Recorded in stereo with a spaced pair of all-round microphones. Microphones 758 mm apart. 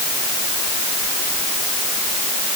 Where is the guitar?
I don't hear a guitar.